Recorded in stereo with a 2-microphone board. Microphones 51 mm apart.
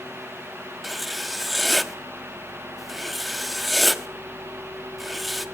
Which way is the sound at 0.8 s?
5° right (ahead or behind).